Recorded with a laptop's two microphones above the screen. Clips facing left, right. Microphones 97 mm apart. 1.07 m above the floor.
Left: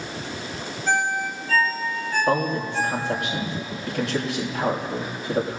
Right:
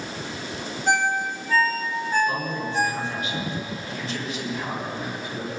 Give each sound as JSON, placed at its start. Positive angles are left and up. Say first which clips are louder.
{"t": 0.9, "sound": "a ringtone", "louder": "right 1 dB", "side_deg": -20, "distance_m": 5.0}
{"t": 2.3, "sound": "a man speaking", "louder": "left 5 dB", "side_deg": 80, "distance_m": 6.5}